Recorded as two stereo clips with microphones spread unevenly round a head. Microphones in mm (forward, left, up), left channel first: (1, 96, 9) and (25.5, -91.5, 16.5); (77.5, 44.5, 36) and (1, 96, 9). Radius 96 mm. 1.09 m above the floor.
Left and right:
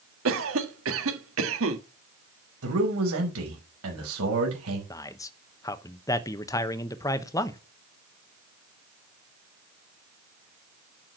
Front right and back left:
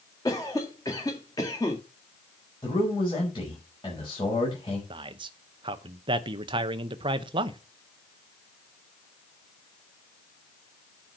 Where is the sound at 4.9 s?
170° left, 0.9 m.